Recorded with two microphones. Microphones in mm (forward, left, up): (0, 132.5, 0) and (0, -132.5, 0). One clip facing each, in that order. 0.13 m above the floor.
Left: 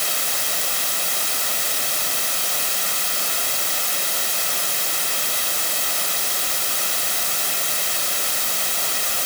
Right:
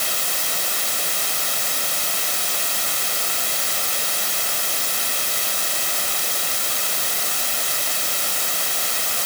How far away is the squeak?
I don't hear a squeak.